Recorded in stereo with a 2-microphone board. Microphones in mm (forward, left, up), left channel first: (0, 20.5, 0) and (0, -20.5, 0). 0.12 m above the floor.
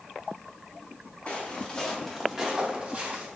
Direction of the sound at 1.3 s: 35° left (ahead or behind).